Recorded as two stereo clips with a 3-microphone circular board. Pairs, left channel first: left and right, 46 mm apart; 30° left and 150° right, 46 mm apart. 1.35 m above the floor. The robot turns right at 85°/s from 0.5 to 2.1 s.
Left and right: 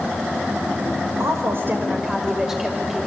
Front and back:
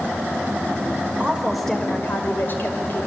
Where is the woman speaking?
90° right, 5 m; by 3.1 s 15° right, 5 m.